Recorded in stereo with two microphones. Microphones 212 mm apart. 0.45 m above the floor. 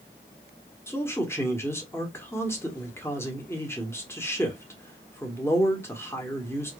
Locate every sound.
0.9 s a man speaking: 15° left (ahead or behind), 1.3 m